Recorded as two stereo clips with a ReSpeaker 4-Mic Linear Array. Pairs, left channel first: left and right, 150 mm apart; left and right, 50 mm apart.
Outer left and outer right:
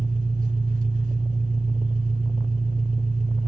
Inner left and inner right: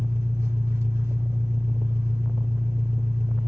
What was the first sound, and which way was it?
An engine running, 60° right (ahead or behind).